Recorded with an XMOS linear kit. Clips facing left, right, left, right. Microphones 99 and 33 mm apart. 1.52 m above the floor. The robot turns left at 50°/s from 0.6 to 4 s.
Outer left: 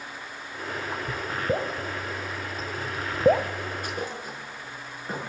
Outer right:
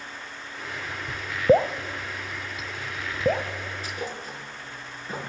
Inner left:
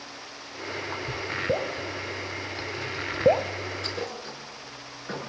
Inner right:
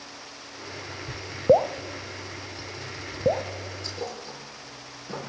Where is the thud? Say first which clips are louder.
Outer left 1 dB, inner left 2 dB; 55° left (ahead or behind), 6.5 m; by 5.2 s 50° left (ahead or behind), 6.5 m.